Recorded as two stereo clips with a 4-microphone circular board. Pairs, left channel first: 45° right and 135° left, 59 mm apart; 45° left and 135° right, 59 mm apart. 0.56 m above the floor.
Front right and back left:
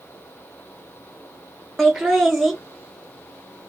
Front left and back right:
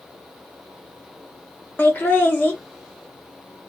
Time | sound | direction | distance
1.8 | laughter | 50° left | 0.7 m